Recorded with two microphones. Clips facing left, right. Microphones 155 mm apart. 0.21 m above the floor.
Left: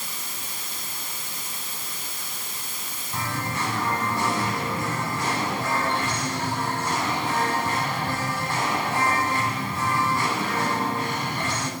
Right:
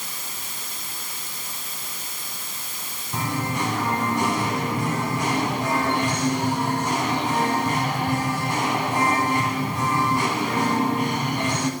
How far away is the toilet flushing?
I don't hear a toilet flushing.